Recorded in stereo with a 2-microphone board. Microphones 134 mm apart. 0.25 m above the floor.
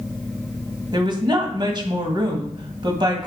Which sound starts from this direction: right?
A woman speaking, at 0.9 s.